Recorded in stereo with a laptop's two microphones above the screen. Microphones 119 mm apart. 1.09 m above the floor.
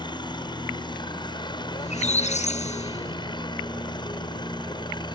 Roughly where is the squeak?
Left.